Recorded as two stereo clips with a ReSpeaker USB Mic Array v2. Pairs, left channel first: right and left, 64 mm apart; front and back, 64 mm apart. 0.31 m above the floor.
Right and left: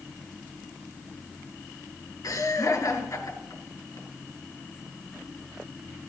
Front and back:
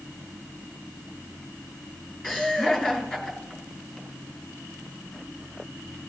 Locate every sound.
2.2 s laughter: 75° right, 3 m